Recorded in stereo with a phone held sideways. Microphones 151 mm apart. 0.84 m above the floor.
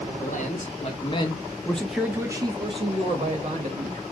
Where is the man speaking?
60° left (ahead or behind), 1.1 m; by 4.0 s 55° right (ahead or behind), 1.4 m.